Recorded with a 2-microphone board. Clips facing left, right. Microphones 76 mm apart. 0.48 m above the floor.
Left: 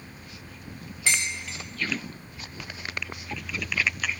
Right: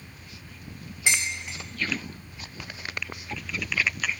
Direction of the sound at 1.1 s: 20° right (ahead or behind).